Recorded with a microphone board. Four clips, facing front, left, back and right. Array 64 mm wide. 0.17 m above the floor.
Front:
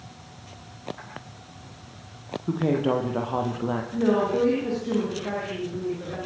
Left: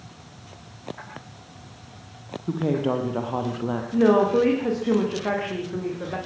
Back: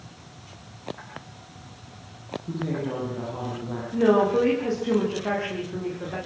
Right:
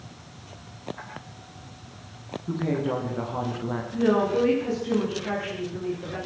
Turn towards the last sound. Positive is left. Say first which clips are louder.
# left 4 dB, back 4 dB
turn(degrees=105)